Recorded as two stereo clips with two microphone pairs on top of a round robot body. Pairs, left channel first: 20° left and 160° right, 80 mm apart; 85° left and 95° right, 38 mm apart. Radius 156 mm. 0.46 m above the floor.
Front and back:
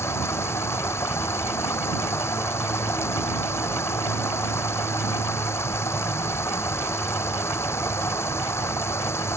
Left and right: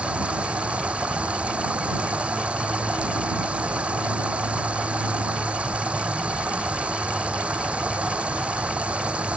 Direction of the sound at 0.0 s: 40° right.